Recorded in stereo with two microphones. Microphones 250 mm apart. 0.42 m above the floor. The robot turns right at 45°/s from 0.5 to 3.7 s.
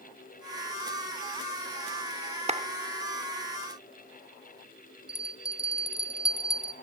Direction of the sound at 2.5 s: 25° right (ahead or behind).